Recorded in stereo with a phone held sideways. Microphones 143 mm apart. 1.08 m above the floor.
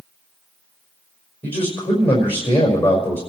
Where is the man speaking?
45° left (ahead or behind), 5 m.